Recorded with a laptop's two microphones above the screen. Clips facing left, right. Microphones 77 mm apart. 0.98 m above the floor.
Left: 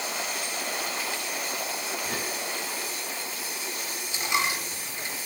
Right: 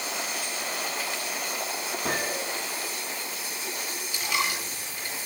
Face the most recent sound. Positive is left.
turn(degrees=25)  # may be behind; listen again after turning